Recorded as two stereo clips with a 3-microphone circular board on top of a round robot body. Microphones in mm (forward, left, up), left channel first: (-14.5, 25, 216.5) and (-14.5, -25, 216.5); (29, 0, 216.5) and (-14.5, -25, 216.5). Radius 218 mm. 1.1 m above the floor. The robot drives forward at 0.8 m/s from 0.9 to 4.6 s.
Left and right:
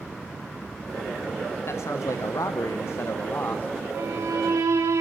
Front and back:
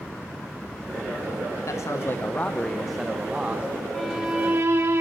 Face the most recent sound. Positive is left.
turn(degrees=-105)